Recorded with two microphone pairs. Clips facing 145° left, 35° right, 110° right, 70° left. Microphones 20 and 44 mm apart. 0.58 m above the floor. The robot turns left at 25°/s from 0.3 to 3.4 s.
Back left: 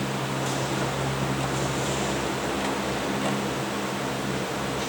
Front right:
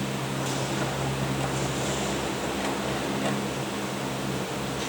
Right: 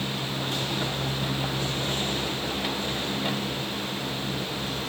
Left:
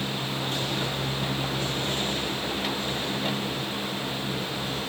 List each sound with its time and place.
Only background noise.